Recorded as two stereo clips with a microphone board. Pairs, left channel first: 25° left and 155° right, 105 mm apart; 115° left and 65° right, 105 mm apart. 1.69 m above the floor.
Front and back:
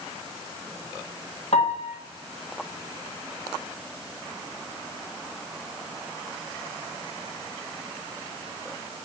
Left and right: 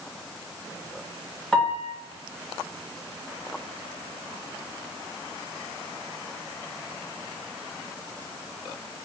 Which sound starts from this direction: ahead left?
A piano, at 1.5 s.